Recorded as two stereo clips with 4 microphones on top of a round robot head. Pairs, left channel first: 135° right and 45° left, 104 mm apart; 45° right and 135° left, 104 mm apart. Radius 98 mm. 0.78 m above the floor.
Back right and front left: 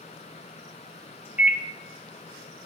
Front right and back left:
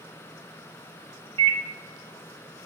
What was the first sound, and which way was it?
A microwave, 120° left.